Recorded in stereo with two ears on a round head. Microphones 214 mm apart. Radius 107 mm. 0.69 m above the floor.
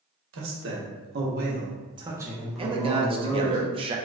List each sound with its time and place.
0.3 s a man speaking: 55° right (ahead or behind), 1.1 m; by 3.6 s 25° left (ahead or behind), 1.1 m
2.6 s a man speaking: 20° right (ahead or behind), 0.5 m